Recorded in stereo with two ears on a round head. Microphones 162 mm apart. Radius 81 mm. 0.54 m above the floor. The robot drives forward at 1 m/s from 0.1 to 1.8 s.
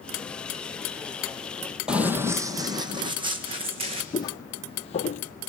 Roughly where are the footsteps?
Left.